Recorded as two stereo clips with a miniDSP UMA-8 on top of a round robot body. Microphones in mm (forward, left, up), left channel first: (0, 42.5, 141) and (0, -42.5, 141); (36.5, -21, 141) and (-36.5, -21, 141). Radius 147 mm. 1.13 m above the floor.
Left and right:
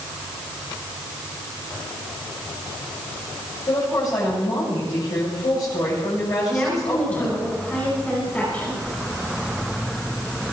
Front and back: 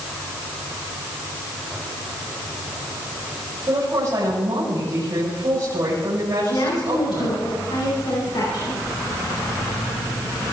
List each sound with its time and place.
3.7 s a woman speaking: 135° left, 7 m
6.5 s a woman speaking: 15° left, 5.5 m